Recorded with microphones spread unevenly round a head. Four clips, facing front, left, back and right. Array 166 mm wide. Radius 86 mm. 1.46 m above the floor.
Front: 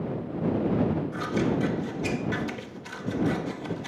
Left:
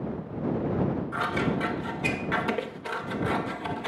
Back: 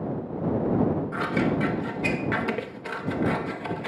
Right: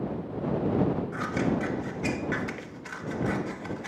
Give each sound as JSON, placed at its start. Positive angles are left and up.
{"t": 1.1, "sound": "scissors", "azimuth_deg": 130}